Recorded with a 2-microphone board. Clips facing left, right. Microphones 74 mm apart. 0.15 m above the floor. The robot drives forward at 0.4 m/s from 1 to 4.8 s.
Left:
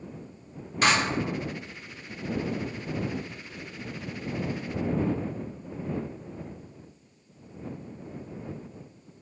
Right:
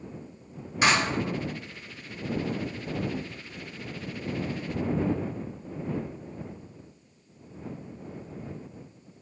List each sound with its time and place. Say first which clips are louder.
0.8 s a clap: even; 10° right (ahead or behind), 1.9 m